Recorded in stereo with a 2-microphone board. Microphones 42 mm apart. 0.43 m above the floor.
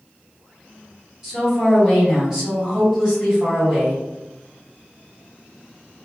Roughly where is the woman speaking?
Centre.